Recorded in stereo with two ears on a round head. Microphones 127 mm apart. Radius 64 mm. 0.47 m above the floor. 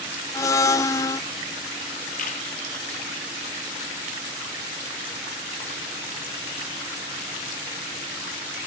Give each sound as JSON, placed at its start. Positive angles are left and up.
{"t": 0.3, "sound": "a blender", "side_deg": 20, "distance_m": 0.5}
{"t": 2.2, "sound": "a camera shutter", "side_deg": 60, "distance_m": 4.0}